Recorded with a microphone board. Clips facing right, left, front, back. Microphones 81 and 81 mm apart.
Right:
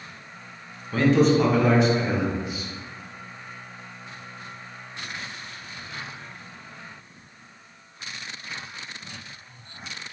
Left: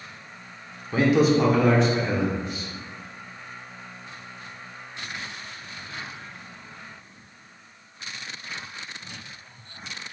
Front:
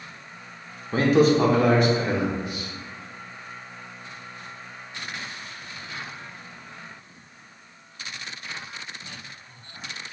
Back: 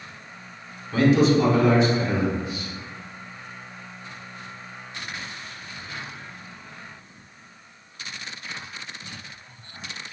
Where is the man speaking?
25° left, 0.7 m; by 2.7 s 10° right, 1.4 m.